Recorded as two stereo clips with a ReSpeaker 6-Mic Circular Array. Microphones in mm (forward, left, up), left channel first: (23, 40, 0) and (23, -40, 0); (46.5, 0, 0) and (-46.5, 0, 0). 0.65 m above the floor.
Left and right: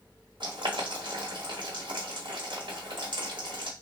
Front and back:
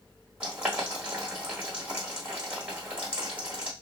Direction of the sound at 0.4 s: 105° right.